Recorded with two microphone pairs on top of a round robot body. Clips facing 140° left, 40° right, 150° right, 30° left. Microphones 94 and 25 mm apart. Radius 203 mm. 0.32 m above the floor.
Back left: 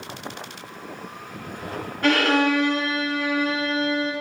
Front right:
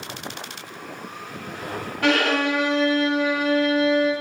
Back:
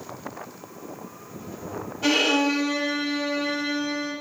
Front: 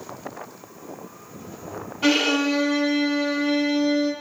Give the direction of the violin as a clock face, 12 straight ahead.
1 o'clock.